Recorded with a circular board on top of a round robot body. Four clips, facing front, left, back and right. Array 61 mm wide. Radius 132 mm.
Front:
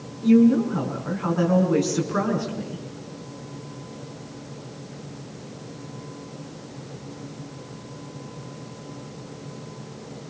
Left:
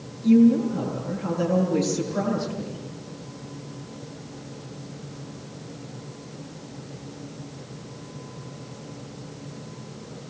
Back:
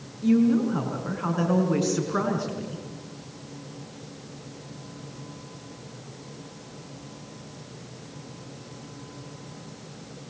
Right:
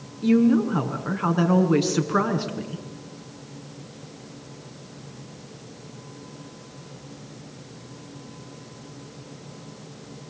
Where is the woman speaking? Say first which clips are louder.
Left 2 dB, front 4 dB; 90° right, 5.5 m.